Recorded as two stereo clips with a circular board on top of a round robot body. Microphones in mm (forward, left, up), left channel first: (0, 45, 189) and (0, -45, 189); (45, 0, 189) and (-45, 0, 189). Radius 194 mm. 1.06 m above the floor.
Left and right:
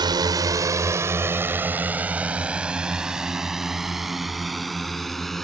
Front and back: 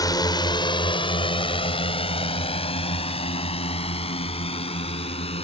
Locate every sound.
0.0 s a drone: 50° right; by 5.5 s straight ahead